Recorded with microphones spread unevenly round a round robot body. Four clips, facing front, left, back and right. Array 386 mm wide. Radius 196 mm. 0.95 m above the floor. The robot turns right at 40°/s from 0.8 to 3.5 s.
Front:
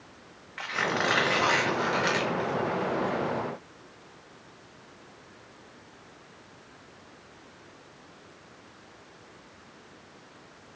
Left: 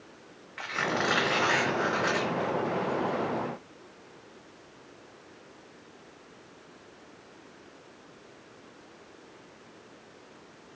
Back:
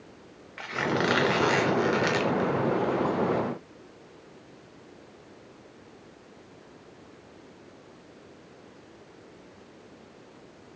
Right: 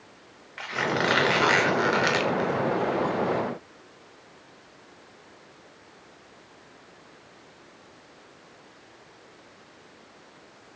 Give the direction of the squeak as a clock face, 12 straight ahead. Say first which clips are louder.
Right 3 dB, back 1 dB; 7 o'clock.